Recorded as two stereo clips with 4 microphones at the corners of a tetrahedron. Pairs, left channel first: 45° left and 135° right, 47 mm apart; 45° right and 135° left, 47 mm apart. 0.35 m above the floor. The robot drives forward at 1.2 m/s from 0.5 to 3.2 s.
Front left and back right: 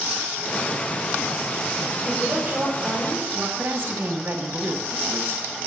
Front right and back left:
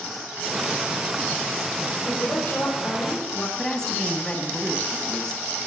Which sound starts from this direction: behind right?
A woman speaking, at 3.6 s.